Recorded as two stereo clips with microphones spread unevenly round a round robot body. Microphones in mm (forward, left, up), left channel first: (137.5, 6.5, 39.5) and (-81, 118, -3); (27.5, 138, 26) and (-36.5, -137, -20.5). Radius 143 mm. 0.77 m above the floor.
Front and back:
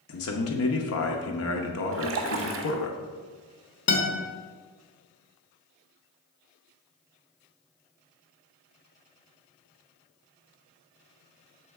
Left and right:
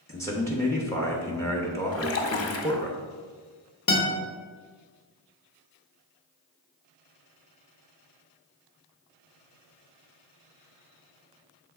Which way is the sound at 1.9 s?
115° left.